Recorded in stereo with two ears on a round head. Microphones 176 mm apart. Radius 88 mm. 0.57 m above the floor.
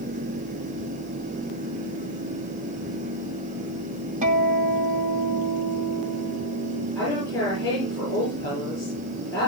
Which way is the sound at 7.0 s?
15° left (ahead or behind).